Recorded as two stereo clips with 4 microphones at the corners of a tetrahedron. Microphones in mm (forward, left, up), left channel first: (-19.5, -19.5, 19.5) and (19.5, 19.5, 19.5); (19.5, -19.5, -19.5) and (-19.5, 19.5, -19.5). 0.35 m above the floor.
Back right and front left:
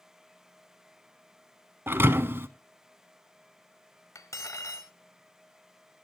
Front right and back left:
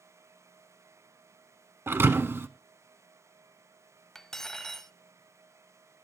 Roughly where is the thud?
Left.